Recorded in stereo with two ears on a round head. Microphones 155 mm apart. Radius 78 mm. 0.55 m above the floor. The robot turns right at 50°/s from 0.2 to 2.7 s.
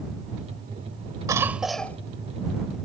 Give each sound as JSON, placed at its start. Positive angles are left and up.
{"t": 1.3, "sound": "a cough", "azimuth_deg": -20}